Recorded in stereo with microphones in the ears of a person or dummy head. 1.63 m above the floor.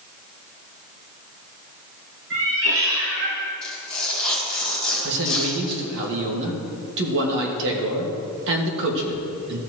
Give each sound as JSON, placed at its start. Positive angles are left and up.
{"t": 2.3, "sound": "a cat meowing", "side_deg": -60, "distance_m": 3.0}
{"t": 3.6, "sound": "tearing paper", "side_deg": 5, "distance_m": 4.0}
{"t": 5.0, "sound": "a man speaking", "side_deg": -65, "distance_m": 1.9}